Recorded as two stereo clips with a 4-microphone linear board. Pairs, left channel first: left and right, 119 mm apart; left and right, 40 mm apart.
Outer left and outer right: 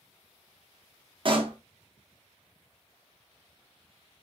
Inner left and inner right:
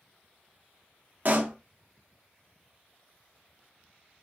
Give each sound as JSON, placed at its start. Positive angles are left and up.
{"t": 1.2, "sound": "a pop", "side_deg": -45, "distance_m": 0.5}